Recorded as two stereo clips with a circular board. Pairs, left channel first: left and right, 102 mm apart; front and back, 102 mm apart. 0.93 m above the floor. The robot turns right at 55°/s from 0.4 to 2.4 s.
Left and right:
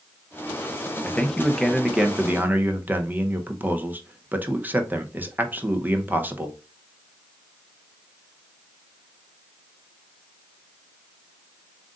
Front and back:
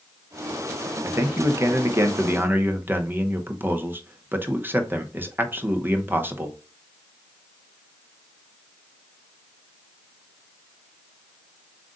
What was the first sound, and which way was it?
A man speaking, 145° left.